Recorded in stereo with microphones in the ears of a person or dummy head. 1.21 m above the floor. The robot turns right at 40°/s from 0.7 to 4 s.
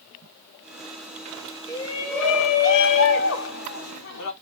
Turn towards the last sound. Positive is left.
turn(degrees=105)